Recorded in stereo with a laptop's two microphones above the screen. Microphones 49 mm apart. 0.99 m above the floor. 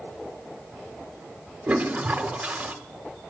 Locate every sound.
1.7 s a toilet flushing: 25° right (ahead or behind), 1.0 m